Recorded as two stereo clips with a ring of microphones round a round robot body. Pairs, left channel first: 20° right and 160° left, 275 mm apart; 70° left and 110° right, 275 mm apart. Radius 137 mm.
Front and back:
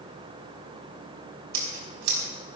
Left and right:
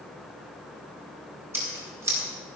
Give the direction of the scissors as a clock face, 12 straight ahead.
6 o'clock.